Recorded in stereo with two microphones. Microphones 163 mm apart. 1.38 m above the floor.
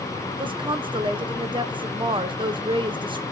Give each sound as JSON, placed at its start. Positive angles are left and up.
{"t": 0.4, "sound": "a woman speaking", "side_deg": -30, "distance_m": 1.0}